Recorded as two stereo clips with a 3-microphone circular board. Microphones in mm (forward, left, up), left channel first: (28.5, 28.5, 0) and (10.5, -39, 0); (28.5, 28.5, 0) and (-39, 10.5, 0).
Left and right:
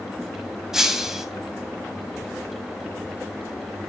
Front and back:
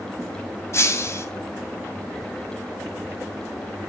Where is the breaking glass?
25° right, 2.5 m.